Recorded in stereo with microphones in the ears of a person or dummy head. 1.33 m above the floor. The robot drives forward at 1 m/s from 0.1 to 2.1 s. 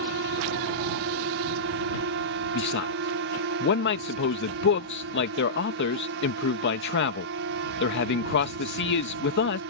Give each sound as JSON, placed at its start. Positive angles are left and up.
{"t": 0.0, "sound": "a drone", "side_deg": -65}
{"t": 2.5, "sound": "a man speaking", "side_deg": 60}